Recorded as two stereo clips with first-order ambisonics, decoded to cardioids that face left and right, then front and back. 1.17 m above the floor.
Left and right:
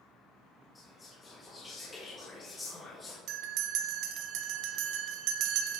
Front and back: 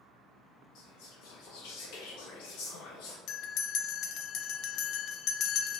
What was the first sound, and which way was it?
Whispering, 15° left.